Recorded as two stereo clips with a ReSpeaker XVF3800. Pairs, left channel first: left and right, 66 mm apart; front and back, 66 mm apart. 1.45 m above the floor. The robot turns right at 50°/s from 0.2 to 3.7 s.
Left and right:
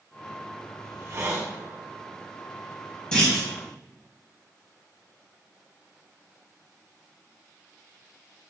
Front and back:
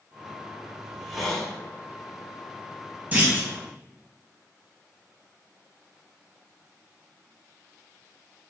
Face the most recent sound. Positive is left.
turn(degrees=-175)